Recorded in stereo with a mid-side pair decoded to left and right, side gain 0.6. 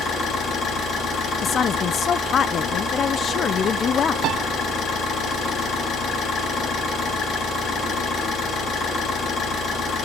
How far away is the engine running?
About 9.5 m.